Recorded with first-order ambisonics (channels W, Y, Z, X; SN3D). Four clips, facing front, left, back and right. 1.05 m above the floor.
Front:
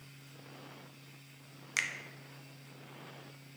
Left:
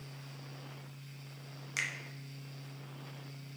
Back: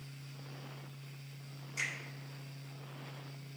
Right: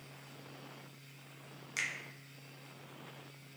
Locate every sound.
1.8 s a finger snap: 10° left, 0.5 m